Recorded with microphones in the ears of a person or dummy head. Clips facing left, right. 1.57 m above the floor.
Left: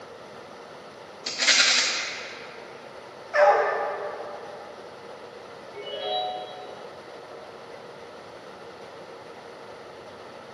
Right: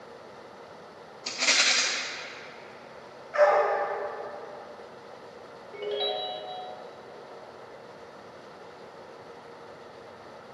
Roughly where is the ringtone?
Right.